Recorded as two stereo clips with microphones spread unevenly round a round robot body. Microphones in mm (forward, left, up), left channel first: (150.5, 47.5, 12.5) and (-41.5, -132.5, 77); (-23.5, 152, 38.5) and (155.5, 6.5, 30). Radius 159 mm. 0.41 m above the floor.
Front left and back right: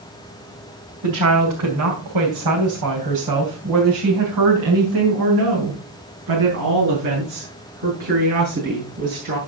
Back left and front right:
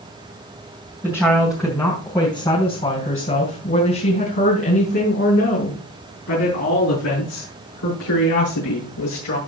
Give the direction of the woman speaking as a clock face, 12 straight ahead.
4 o'clock.